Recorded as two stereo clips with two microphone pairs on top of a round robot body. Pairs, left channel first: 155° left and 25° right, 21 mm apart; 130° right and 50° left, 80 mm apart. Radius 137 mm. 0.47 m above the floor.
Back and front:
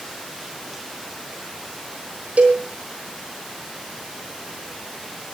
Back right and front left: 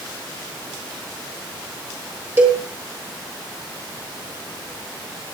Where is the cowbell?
15° right, 7 m.